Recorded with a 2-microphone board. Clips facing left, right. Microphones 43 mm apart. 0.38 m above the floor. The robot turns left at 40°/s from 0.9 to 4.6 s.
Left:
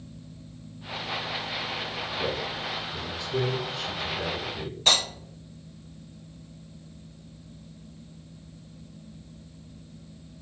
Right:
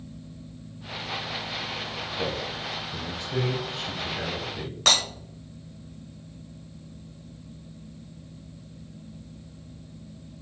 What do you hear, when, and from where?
2.2 s a man speaking: 45° right (ahead or behind), 1.7 m; by 4.8 s 15° right (ahead or behind), 1.7 m
4.9 s breaking glass: 85° right, 1.7 m